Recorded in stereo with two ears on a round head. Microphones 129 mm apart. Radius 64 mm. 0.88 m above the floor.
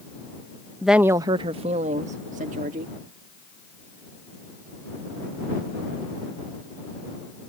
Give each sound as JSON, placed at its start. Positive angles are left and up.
{"t": 0.8, "sound": "a woman speaking", "side_deg": 5}